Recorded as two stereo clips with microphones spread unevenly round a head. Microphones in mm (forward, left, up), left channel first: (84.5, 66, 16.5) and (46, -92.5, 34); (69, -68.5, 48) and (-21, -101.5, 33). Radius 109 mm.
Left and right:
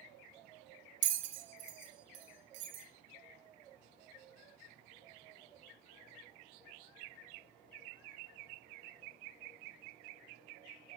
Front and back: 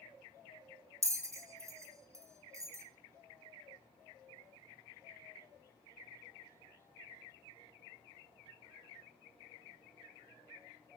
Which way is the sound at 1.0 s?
95° right.